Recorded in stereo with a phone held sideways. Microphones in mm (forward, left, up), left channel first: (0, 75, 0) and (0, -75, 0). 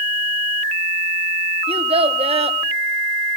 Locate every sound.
1.7 s a child speaking: 40° right (ahead or behind), 0.8 m